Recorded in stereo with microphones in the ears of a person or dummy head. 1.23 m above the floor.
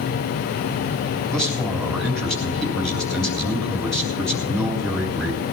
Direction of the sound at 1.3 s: Centre (ahead or behind).